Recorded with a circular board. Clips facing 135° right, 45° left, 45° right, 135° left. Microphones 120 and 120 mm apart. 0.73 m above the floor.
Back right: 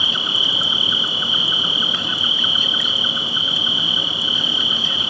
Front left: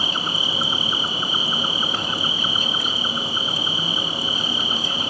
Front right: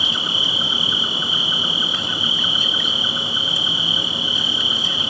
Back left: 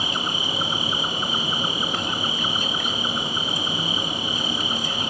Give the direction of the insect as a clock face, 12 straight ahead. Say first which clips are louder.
Front left 1 dB, even; 9 o'clock.